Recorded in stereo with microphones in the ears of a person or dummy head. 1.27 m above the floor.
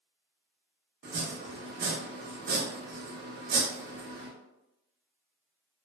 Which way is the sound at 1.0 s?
50° right (ahead or behind).